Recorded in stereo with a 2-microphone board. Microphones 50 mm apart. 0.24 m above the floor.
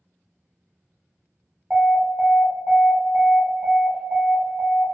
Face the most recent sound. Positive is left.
turn(degrees=-20)  # may be behind; listen again after turning